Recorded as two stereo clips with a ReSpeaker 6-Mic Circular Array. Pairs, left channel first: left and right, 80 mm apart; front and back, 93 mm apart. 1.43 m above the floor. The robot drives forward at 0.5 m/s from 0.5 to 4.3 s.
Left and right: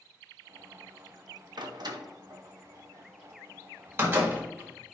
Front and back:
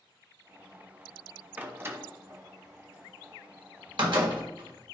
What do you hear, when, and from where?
1.6 s a door slam: 110° right, 0.9 m; by 4.9 s 155° right, 1.9 m